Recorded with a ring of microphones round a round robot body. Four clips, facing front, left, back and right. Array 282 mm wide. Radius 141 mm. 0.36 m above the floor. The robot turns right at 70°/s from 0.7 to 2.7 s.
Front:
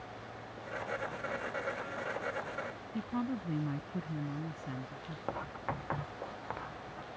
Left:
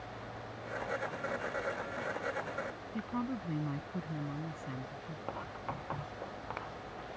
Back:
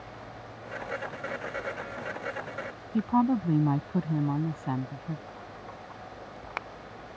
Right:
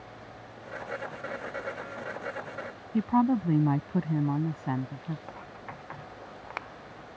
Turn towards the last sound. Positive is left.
turn(degrees=15)